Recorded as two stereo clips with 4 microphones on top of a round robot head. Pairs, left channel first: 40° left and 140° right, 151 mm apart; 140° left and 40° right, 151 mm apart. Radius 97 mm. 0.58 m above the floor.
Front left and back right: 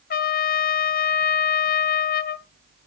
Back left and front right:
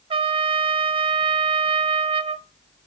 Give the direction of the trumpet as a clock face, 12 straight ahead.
11 o'clock.